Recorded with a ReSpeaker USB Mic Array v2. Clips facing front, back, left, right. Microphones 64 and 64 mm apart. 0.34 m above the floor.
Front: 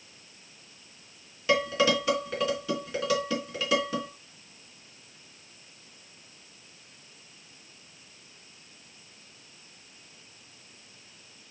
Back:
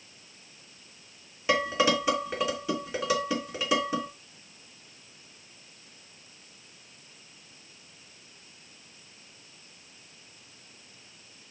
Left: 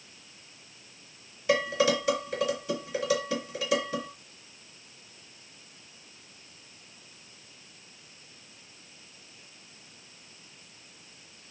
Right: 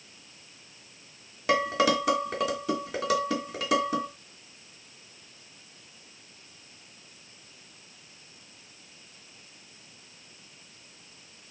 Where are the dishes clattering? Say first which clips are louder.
Even, right 1 dB; 110° right, 3 m.